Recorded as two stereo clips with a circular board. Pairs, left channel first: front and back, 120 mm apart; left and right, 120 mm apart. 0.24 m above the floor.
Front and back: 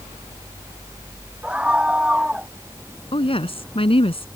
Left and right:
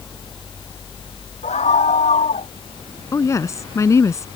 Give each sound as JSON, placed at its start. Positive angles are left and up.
{"t": 1.4, "sound": "a scream", "azimuth_deg": 100}
{"t": 3.1, "sound": "a woman speaking", "azimuth_deg": 30}